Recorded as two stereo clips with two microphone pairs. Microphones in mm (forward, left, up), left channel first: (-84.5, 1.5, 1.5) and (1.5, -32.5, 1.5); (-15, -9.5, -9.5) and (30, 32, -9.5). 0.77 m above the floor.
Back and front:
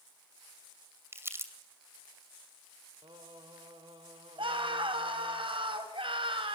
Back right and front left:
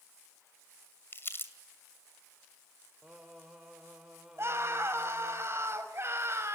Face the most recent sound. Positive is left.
turn(degrees=-5)